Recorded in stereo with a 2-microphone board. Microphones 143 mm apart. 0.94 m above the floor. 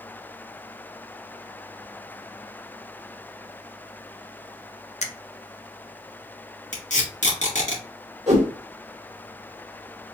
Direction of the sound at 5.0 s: 50° left (ahead or behind).